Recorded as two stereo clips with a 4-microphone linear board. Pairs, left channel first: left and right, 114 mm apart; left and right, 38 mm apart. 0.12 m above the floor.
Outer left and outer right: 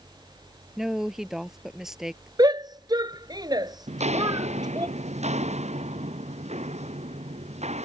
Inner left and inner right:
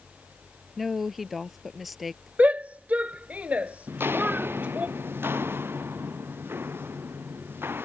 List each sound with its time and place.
0.8 s a woman speaking: 5° right (ahead or behind)
2.4 s a shout: 40° right (ahead or behind)
3.9 s footsteps: 85° right; by 7.9 s 80° right